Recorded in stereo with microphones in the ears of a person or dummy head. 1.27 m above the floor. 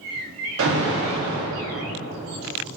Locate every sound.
0.6 s an alarm: 75° right (ahead or behind), 1.8 m